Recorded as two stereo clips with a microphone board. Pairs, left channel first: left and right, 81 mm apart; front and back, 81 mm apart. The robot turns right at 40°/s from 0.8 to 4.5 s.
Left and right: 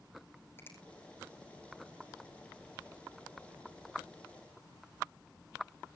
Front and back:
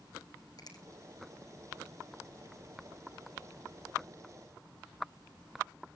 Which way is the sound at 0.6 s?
30° left.